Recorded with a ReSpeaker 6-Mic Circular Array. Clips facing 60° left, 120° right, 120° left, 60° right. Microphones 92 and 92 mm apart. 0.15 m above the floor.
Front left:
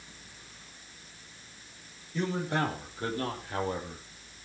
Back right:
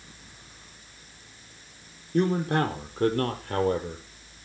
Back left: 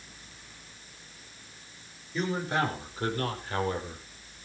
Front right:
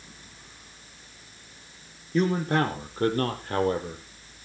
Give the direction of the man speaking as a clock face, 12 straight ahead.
3 o'clock.